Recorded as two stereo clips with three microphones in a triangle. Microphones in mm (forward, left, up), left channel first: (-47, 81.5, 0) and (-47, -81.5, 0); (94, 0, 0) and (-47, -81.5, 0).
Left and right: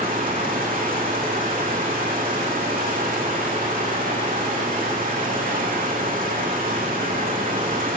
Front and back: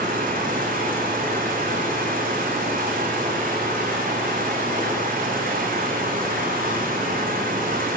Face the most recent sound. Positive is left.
turn(degrees=-120)